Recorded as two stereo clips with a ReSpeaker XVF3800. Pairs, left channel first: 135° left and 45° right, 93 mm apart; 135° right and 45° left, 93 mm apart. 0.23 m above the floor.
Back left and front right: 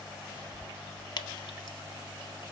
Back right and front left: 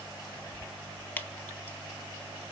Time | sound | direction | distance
1.2 | dripping | 160° left | 0.6 m